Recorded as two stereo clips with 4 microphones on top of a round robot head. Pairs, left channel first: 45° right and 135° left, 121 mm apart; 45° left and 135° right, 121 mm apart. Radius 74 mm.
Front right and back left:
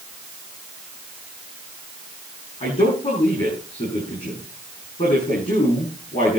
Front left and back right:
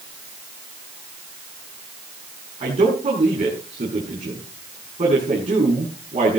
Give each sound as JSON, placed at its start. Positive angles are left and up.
{"t": 2.6, "sound": "a man speaking", "azimuth_deg": -95, "distance_m": 7.0}